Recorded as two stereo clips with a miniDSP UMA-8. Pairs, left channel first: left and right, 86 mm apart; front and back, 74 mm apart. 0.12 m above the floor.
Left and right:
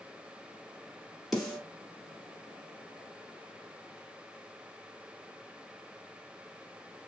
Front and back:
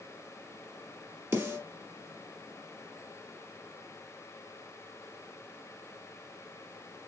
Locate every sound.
1.3 s a snare drum: 175° right, 1.7 m